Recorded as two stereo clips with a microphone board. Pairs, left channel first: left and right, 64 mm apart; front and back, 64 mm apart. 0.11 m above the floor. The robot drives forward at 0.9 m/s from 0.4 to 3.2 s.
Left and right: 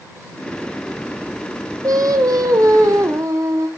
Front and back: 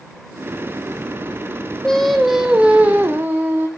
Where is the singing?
80° right, 1.5 m; by 3.7 s 125° right, 1.8 m.